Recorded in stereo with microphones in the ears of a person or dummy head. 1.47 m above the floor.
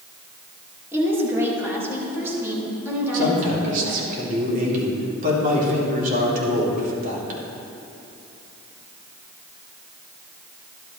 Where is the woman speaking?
15° right (ahead or behind), 2.5 m.